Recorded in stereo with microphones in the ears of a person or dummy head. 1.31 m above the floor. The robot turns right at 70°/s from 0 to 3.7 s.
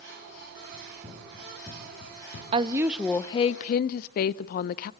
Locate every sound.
0.7 s running footsteps: 40° right (ahead or behind), 5 m; by 2.4 s 55° left (ahead or behind), 5.5 m
2.5 s a woman speaking: 35° right, 0.6 m; by 4.9 s 50° left, 0.6 m